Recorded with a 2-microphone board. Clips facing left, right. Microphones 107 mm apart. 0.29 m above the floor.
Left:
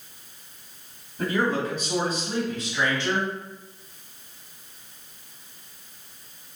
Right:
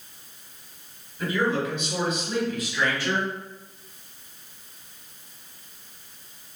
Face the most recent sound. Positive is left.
turn(degrees=20)  # may be behind; listen again after turning